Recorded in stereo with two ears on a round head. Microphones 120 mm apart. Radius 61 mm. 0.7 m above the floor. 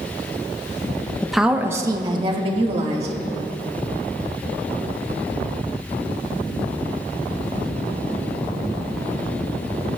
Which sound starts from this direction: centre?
A woman speaking, at 1.2 s.